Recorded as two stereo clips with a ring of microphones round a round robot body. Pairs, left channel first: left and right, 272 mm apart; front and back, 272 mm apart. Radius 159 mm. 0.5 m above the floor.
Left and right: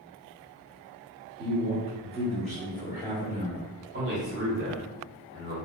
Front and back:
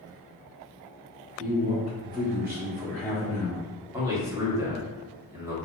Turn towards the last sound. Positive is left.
turn(degrees=-105)